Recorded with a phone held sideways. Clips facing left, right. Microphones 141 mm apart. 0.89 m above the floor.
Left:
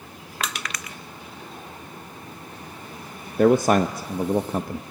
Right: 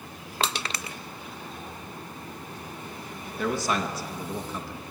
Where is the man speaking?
50° left (ahead or behind), 0.6 m.